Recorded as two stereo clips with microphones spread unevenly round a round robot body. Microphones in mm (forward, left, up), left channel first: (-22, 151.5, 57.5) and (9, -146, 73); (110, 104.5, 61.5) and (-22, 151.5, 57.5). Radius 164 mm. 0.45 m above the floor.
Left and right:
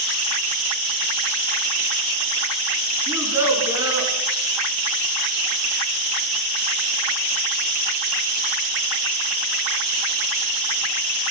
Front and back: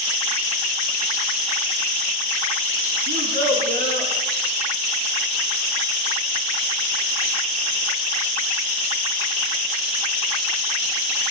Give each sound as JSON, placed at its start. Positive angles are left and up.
{"t": 3.1, "sound": "a child speaking", "azimuth_deg": -165, "distance_m": 3.0}